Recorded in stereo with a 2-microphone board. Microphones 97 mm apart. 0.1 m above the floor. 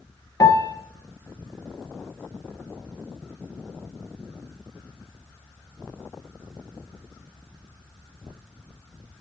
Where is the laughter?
I don't hear laughter.